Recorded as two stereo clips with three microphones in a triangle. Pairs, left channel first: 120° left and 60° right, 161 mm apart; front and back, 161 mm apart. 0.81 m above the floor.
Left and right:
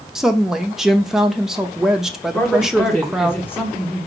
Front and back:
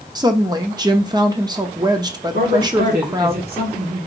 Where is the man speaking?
160° right, 1.7 m.